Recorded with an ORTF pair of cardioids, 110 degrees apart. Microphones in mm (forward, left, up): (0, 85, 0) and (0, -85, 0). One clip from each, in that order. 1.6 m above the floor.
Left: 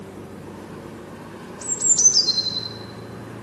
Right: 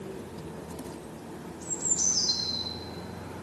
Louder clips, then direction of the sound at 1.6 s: Left 11 dB; 60° left.